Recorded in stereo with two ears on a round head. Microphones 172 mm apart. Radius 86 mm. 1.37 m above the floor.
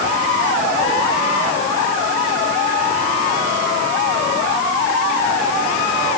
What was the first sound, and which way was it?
Only background noise.